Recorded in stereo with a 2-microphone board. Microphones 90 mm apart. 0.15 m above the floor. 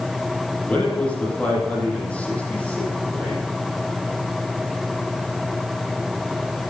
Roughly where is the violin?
No violin in this recording.